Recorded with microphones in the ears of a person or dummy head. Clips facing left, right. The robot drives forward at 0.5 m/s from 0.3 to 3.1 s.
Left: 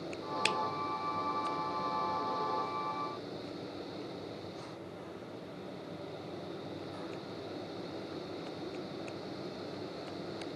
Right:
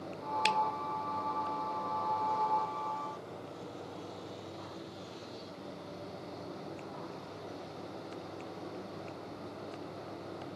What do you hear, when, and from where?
0.5 s a finger snap: 5° left (ahead or behind), 0.5 m